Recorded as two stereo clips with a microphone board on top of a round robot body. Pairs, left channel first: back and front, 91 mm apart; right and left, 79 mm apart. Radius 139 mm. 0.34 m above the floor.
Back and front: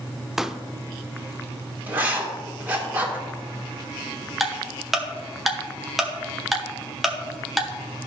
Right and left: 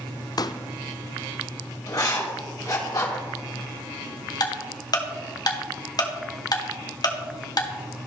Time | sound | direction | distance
0.4 | a pop | 85° right | 0.5 m
1.9 | writing | 70° right | 2.5 m
4.4 | ticking | 90° right | 1.4 m